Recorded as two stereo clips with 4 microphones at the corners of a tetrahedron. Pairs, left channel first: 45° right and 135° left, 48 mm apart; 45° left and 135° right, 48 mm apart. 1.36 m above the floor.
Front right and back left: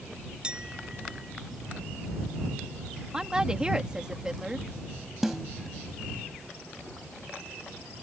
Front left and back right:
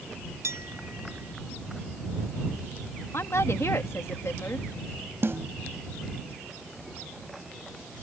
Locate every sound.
0.4 s a clink: 155° right
3.1 s a woman speaking: 60° left
5.2 s a snare drum: 145° right